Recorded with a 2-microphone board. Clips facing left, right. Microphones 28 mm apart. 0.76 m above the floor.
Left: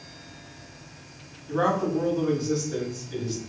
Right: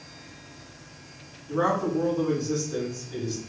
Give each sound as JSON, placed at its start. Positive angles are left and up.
{"t": 1.5, "sound": "a man speaking", "side_deg": 45, "distance_m": 2.0}